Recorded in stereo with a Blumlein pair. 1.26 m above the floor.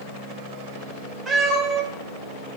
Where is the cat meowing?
Straight ahead, 1.5 m.